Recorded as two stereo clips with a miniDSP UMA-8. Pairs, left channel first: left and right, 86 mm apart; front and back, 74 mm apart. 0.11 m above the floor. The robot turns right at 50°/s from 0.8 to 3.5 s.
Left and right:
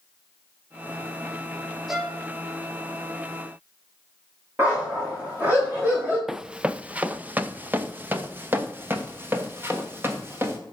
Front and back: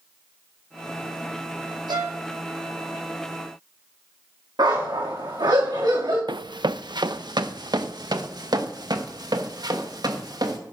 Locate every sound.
1.9 s a violin: 175° right, 2.5 m; by 2.2 s 160° right, 2.5 m
4.6 s a dog barking: 160° right, 5.5 m
6.3 s running footsteps: 175° right, 0.5 m; by 10.6 s 155° right, 3.5 m